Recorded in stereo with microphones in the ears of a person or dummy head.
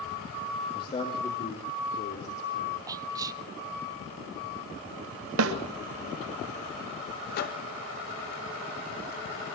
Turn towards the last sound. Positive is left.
turn(degrees=55)  # may be behind; listen again after turning